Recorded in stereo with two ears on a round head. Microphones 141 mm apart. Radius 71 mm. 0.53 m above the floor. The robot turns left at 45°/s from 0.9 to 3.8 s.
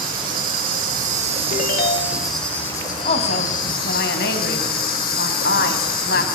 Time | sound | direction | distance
0.0 | an insect | 120° right | 8.5 m
1.5 | a ringtone | 130° left | 1.3 m
3.0 | a woman speaking | 135° left | 3.5 m